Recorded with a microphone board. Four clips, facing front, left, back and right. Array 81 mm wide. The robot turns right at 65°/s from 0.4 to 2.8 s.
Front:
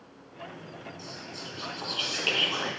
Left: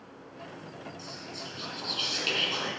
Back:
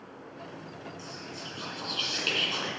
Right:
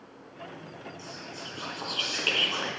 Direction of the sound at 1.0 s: 145° right.